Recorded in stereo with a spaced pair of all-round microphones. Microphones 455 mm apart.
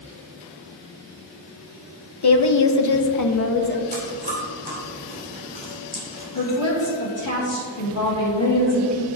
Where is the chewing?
20° right (ahead or behind), 2.5 m.